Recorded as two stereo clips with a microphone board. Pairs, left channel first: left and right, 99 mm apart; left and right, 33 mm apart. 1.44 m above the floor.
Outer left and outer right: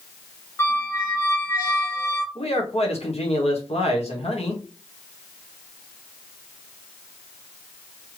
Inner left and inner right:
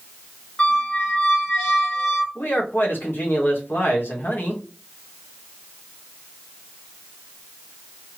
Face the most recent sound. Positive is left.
turn(degrees=80)